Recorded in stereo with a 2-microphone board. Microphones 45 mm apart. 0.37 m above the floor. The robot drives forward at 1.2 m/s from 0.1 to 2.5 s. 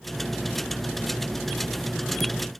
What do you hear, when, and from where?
Only background noise.